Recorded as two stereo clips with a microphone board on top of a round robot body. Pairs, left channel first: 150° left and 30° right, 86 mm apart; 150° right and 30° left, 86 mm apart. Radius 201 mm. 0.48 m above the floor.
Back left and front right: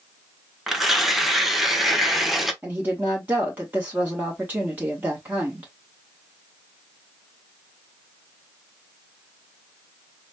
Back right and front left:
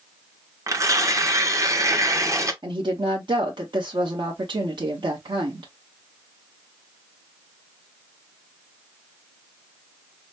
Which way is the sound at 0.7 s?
55° left.